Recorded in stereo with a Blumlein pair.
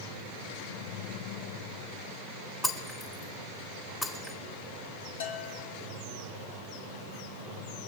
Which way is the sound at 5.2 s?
60° left.